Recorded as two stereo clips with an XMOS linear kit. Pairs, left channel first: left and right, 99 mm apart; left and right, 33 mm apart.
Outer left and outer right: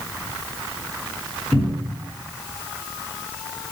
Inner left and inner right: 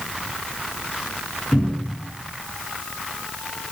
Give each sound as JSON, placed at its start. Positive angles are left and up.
{"t": 1.5, "sound": "a cupboard door", "side_deg": 0, "distance_m": 1.4}